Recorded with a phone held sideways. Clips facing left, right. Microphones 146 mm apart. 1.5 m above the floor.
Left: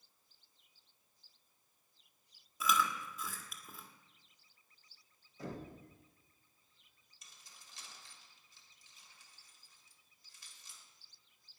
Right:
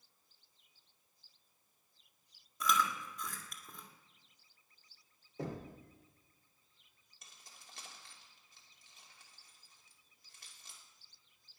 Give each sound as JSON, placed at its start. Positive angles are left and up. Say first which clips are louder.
{"t": 2.6, "sound": "chewing", "louder": "even", "side_deg": 5, "distance_m": 1.8}
{"t": 5.4, "sound": "knocking", "louder": "right 3 dB", "side_deg": -75, "distance_m": 3.0}
{"t": 7.2, "sound": "keys jangling", "louder": "right 3 dB", "side_deg": -60, "distance_m": 3.0}